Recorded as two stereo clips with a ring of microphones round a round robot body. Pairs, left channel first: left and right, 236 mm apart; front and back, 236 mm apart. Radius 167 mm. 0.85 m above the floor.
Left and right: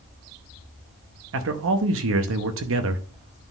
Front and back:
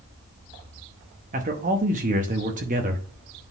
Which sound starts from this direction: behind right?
A man speaking, at 1.3 s.